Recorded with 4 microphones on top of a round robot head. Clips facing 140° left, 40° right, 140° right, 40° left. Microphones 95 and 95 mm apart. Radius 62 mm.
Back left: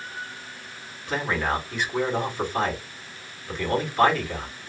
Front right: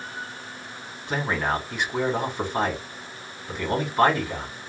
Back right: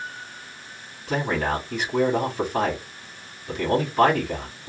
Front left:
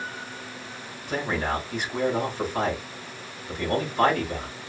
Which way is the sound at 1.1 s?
115° right.